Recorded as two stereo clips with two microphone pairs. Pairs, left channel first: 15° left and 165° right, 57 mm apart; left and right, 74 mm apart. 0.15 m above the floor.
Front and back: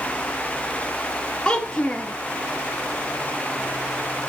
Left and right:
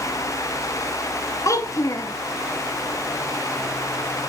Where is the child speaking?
80° left, 1.3 m.